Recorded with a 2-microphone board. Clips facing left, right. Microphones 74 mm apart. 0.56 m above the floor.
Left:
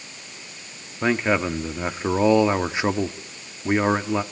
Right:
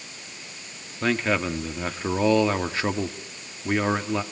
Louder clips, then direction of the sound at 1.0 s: Left 3 dB; 15° left (ahead or behind).